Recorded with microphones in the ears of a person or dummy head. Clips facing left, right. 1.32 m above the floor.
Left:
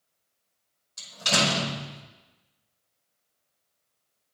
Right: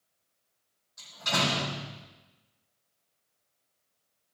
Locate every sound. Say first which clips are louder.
1.0 s a door slam: left 4 dB; 45° left (ahead or behind), 5 m